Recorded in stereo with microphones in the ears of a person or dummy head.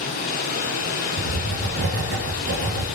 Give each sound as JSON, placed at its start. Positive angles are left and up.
{"t": 0.0, "sound": "running water", "side_deg": 45, "distance_m": 8.0}
{"t": 1.2, "sound": "writing", "side_deg": -60, "distance_m": 5.5}